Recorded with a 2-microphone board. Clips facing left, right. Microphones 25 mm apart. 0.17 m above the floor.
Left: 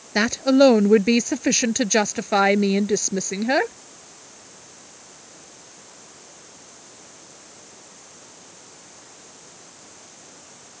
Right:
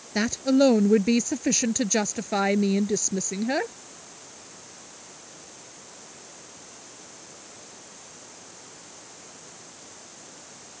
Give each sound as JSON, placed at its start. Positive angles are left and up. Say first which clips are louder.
{"t": 0.1, "sound": "a woman speaking", "louder": "left 5 dB", "side_deg": 30}